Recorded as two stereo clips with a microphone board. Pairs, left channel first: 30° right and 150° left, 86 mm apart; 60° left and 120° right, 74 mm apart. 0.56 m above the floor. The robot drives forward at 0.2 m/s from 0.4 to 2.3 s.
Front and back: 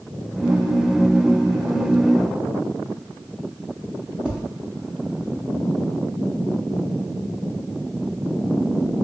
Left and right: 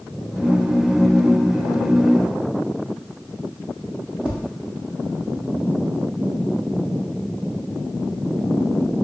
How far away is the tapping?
About 0.6 m.